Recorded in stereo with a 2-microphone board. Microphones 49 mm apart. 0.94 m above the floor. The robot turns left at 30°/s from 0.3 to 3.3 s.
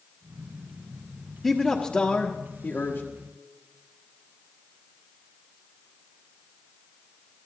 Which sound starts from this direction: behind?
A man speaking, at 1.4 s.